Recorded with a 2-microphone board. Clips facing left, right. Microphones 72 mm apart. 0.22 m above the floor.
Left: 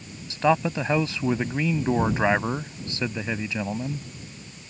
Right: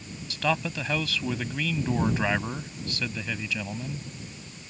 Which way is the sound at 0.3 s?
25° left (ahead or behind).